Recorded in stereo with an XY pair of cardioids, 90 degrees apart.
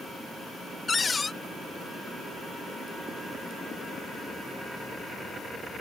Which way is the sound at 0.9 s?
35° left.